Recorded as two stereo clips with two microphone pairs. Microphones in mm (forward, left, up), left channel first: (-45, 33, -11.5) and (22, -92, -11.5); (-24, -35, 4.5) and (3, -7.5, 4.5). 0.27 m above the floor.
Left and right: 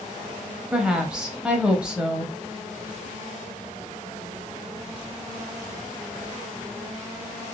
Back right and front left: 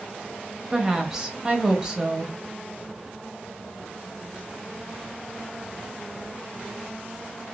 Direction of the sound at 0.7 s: 10° left.